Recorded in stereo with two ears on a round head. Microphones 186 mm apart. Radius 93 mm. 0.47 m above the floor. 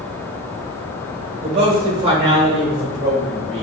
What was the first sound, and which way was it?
A man speaking, 25° right (ahead or behind).